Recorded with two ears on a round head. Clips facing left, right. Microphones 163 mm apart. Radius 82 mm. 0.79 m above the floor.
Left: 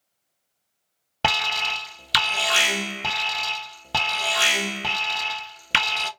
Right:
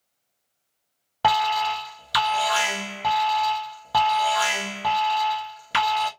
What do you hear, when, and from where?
1.2 s an alarm: 30° left (ahead or behind), 0.7 m